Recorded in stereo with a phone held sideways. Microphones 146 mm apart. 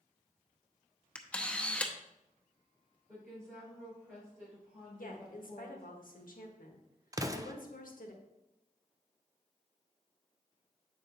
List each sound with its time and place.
1.1 s a camera shutter: 10° left (ahead or behind), 0.9 m
3.1 s a woman speaking: 20° right (ahead or behind), 4.5 m
5.0 s a woman speaking: 75° left (ahead or behind), 1.4 m
7.1 s an explosion: 25° right (ahead or behind), 0.5 m